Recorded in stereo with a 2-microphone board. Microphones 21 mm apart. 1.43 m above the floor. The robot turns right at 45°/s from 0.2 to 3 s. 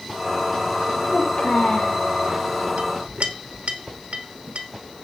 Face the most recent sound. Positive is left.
turn(degrees=-60)  # may be behind; listen again after turning